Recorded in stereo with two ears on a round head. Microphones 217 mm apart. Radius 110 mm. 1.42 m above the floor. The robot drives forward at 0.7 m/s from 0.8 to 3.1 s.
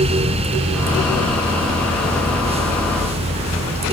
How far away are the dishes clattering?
No dishes clattering in this recording.